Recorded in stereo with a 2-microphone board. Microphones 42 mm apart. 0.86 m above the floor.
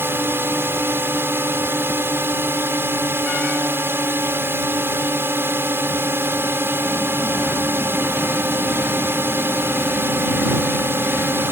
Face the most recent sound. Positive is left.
turn(degrees=-60)  # may be behind; listen again after turning